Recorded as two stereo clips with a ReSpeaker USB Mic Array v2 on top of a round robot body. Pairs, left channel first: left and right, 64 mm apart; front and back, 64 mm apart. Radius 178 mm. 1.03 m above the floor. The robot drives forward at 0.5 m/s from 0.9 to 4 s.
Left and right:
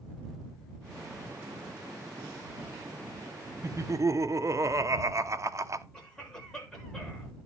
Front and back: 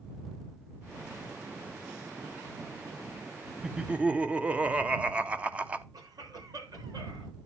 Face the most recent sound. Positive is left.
turn(degrees=165)